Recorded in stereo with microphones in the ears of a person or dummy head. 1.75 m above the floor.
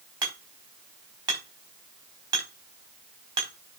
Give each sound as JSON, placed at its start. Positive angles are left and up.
{"t": 0.2, "sound": "hammering", "side_deg": -25, "distance_m": 5.0}